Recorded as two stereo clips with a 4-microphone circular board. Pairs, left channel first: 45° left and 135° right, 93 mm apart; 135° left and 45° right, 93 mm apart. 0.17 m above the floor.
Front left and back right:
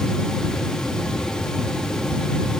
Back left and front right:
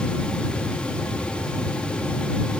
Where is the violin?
I don't hear a violin.